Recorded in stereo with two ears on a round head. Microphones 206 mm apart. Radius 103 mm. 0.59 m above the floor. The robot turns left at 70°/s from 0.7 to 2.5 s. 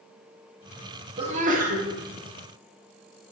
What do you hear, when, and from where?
1.2 s a sneeze: 40° right, 1.3 m; by 1.9 s 90° right, 1.3 m